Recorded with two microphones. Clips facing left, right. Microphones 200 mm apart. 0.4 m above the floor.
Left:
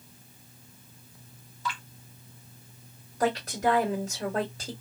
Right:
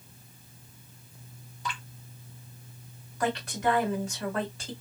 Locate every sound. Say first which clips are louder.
1.6 s dripping: left 2 dB; 15° right (ahead or behind), 1.3 m
3.2 s a woman speaking: left 2 dB; 40° left (ahead or behind), 1.8 m